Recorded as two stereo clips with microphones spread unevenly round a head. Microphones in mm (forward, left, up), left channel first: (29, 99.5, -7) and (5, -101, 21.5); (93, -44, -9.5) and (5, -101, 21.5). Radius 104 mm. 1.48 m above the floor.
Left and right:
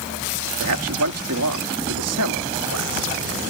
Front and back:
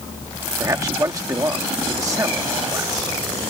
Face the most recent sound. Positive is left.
turn(degrees=-90)